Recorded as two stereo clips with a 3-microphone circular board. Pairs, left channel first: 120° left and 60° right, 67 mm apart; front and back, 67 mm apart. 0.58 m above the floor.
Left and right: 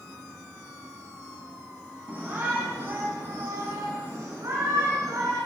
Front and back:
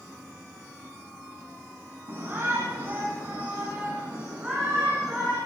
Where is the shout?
125° right, 6 m; by 5.4 s 100° right, 8.5 m.